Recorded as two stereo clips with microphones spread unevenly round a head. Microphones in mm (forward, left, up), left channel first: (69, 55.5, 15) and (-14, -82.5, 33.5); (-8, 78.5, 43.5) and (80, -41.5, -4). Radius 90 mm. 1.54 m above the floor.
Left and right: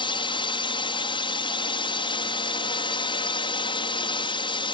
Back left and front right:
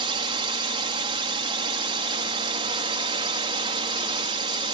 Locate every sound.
0.0 s a drone: straight ahead